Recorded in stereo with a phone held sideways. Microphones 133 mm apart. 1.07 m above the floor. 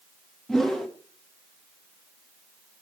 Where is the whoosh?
5° left (ahead or behind), 1.0 m.